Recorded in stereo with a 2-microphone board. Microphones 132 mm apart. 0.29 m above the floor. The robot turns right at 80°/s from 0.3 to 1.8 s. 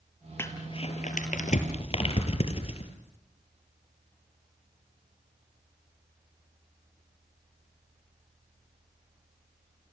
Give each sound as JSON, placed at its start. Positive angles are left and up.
{"t": 0.4, "sound": "crumpling", "side_deg": 15, "distance_m": 3.0}